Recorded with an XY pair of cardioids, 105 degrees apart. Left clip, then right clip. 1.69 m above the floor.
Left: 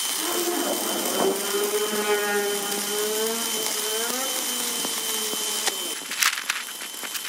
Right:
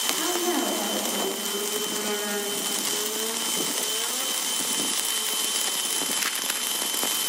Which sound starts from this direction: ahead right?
A woman speaking, at 0.1 s.